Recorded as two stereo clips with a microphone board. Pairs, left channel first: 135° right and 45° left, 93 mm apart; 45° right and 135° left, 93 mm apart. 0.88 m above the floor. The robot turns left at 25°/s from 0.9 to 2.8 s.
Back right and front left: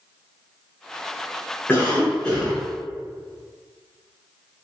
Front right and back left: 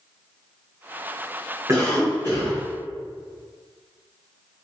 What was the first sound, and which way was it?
A cough, 165° left.